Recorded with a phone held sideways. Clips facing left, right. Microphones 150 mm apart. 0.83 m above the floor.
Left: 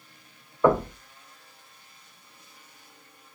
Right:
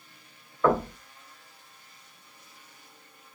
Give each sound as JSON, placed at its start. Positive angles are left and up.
{"t": 0.6, "sound": "knocking", "side_deg": 15, "distance_m": 2.5}